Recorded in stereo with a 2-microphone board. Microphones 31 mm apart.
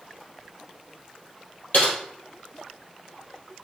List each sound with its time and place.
1.7 s typing on a keyboard: 50° left (ahead or behind), 2 m